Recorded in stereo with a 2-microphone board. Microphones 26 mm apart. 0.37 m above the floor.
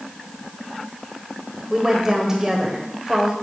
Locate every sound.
1.7 s a woman speaking: 20° right (ahead or behind), 1.4 m